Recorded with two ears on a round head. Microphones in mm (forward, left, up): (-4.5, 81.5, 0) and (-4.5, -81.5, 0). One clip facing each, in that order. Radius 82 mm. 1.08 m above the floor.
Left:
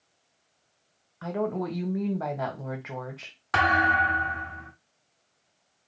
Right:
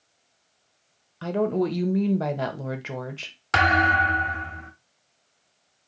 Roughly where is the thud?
Right.